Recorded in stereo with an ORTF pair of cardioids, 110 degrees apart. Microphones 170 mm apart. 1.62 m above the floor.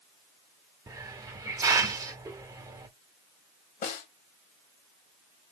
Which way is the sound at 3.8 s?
60° left.